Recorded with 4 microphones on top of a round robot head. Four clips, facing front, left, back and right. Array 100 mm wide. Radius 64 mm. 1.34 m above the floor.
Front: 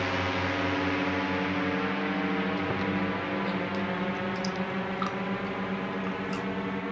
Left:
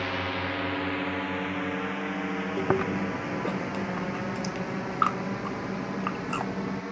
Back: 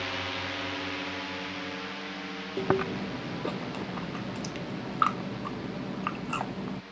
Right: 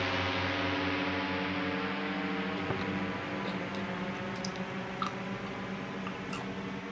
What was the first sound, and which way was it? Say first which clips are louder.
A drone: left 2 dB, front 6 dB; 20° left.